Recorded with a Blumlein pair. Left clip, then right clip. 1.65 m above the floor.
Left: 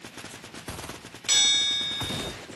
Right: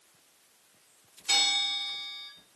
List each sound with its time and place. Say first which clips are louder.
1.3 s a bell: left 4 dB; 55° left, 1.3 m